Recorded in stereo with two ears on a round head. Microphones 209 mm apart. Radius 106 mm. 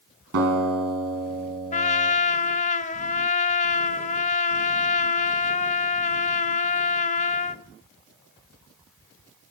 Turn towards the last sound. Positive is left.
turn(degrees=30)  # may be behind; listen again after turning